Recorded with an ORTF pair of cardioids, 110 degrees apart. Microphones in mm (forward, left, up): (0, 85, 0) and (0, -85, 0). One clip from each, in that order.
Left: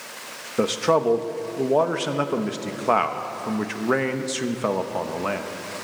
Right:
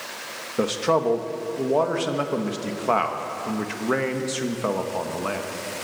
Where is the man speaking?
15° left, 1.1 m.